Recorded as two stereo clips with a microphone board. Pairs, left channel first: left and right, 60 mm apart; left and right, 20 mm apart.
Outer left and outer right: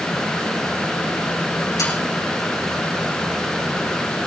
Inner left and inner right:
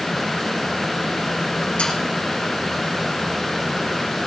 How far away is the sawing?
About 9 m.